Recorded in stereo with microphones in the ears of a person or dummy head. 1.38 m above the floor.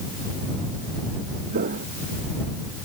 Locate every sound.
1.5 s footsteps: 50° right (ahead or behind)